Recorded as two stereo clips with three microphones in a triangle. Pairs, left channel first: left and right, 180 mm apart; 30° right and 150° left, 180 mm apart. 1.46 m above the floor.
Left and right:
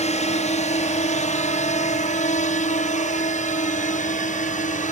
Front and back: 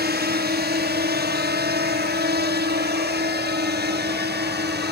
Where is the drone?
135° left.